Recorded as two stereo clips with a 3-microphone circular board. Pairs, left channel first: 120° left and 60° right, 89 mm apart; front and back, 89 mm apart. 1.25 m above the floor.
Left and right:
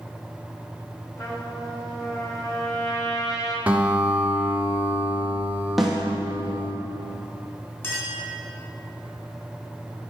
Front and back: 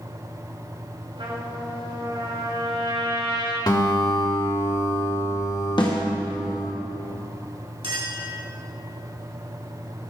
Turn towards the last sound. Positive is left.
turn(degrees=180)